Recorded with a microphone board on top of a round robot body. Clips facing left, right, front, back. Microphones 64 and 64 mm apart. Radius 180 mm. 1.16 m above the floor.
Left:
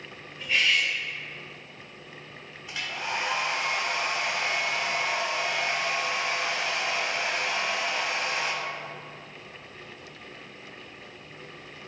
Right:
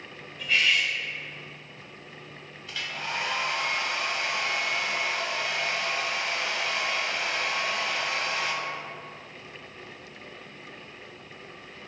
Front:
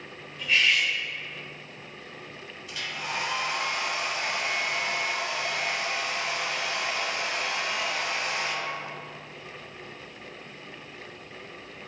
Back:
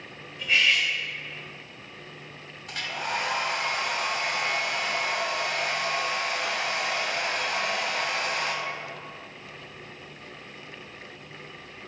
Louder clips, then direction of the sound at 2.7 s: Left 1 dB, back 3 dB; 160° left.